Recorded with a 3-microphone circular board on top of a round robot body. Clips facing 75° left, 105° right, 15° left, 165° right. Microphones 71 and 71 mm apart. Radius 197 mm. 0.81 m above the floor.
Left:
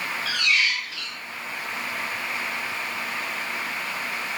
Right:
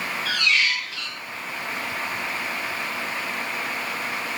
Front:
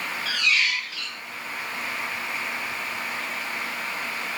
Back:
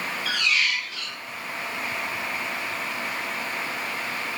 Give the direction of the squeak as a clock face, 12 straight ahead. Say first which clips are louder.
Right 1 dB, front 1 dB; 5 o'clock.